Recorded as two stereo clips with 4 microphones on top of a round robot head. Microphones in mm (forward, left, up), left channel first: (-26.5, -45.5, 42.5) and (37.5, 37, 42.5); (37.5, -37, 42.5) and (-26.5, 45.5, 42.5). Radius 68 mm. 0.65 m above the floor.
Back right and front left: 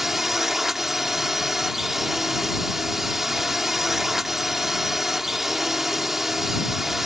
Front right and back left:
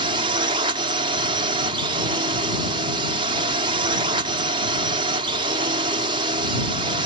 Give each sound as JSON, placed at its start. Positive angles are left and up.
{"t": 0.0, "sound": "a drone", "azimuth_deg": 140}